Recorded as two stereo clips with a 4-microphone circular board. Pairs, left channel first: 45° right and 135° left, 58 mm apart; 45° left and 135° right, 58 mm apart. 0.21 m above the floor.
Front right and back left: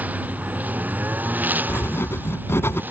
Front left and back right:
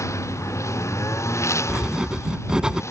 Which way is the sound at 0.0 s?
75° left.